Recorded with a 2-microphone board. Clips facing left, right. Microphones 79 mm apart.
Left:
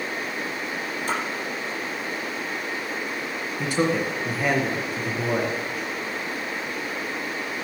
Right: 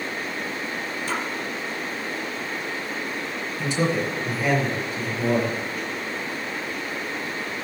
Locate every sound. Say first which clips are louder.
1.1 s a splash: left 1 dB; 45° left (ahead or behind), 3.5 m
3.6 s a man speaking: left 1 dB; 50° left (ahead or behind), 3 m